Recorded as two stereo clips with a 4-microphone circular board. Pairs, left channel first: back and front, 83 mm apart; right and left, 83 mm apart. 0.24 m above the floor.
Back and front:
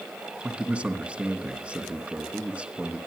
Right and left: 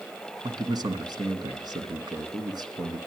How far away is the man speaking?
About 2.5 m.